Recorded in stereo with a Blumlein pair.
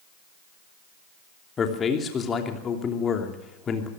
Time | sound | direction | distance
1.6 | a man speaking | 20° left | 3 m